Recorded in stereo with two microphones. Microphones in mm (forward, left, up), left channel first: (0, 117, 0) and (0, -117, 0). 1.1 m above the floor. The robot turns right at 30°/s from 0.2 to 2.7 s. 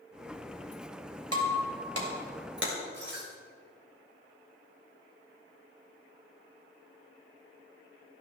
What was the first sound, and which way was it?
Breaking glass, 80° right.